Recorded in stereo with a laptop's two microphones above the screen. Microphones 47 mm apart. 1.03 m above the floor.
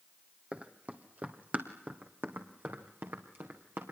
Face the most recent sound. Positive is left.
turn(degrees=-50)  # may be behind; listen again after turning